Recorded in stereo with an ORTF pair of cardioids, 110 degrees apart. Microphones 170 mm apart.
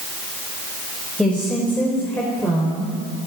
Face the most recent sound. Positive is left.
turn(degrees=15)